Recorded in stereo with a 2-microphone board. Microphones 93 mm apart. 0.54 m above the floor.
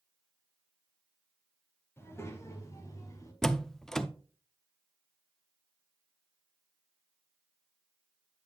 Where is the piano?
I don't hear a piano.